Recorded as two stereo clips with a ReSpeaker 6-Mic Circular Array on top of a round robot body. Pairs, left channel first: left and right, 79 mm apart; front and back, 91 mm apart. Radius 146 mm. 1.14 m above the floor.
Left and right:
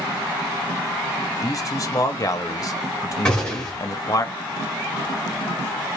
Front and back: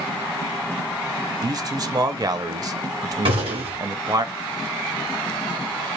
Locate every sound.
1.4 s a man speaking: 135° left, 0.6 m
3.2 s a gunshot: 170° left, 1.8 m